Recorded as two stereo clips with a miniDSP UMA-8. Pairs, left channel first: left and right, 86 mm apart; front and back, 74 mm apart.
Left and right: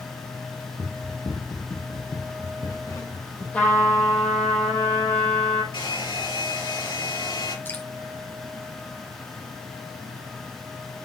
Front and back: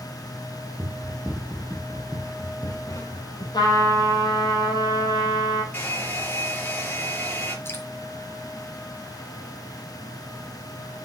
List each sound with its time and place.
0.8 s running footsteps: 115° left, 1.8 m; by 3.4 s 30° left, 3.5 m
3.5 s a trumpet: 15° left, 3 m
5.7 s a hair dryer: 65° left, 5 m
7.7 s dripping: 35° left, 2 m